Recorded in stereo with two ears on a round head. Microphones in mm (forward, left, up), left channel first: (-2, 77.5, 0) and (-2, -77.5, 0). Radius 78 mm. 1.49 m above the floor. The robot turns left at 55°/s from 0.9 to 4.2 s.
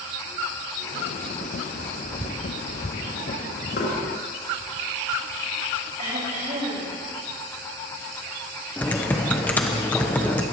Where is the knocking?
75° left (ahead or behind), 4.5 m; by 3.9 s 85° left, 4.5 m.